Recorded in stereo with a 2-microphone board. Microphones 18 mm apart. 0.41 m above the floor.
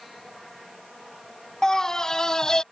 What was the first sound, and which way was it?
A scream, 30° left (ahead or behind).